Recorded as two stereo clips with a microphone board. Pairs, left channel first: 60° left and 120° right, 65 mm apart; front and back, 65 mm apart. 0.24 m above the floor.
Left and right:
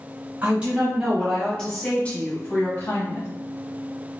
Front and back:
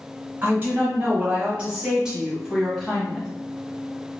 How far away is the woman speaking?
About 1.4 m.